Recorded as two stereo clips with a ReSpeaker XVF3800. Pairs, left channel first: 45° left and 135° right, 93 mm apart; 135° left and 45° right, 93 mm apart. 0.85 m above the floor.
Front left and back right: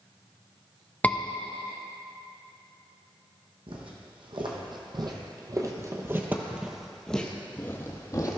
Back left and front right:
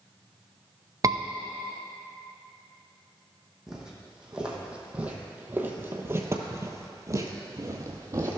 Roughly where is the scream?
Ahead.